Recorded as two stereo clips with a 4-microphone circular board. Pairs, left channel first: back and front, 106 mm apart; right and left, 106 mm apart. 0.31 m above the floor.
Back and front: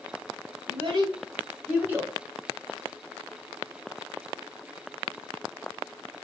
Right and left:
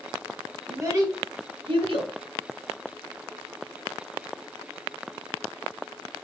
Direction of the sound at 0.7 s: 25° left.